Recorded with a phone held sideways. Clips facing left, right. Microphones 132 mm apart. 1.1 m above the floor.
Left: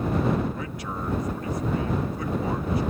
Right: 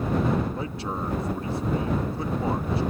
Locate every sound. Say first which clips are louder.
0.6 s a man speaking: right 2 dB; 30° right (ahead or behind)